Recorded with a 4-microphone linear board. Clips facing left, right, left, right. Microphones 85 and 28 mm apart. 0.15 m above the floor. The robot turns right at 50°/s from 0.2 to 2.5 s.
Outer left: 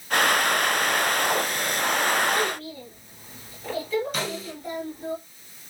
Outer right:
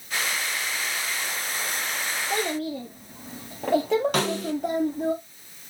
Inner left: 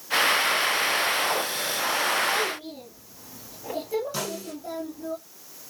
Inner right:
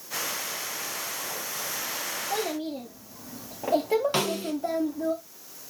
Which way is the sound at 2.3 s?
80° right.